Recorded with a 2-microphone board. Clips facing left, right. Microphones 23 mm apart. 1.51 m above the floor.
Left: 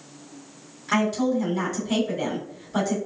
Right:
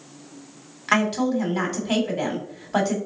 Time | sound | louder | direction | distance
0.9 | a woman speaking | right 2 dB | 55° right (ahead or behind) | 1.8 m